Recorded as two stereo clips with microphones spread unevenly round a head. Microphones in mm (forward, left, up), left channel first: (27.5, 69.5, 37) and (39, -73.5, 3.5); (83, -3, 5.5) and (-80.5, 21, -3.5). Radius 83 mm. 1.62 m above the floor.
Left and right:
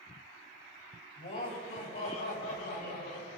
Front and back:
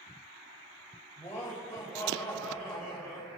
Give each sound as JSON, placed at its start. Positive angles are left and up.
{"t": 1.2, "sound": "laughter", "azimuth_deg": 70, "distance_m": 3.5}